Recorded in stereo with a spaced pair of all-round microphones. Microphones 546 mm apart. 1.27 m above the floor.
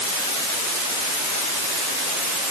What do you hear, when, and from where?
Only background noise.